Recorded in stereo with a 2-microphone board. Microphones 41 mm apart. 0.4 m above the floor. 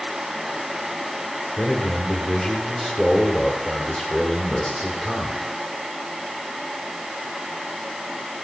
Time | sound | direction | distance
1.6 | a man speaking | 30° left (ahead or behind) | 1.8 m